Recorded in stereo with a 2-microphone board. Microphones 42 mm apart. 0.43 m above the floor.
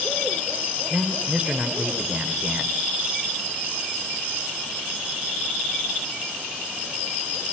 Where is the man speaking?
30° right (ahead or behind), 1.6 m.